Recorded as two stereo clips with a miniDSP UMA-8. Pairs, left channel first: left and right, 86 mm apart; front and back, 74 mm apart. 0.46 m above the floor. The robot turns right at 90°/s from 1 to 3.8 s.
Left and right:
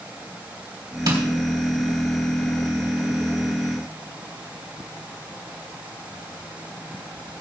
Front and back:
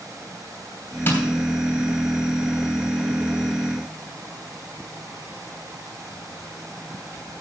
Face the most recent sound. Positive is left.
turn(degrees=-170)